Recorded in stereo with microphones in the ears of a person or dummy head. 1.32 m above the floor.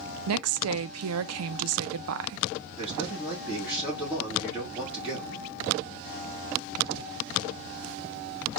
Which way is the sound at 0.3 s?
80° right.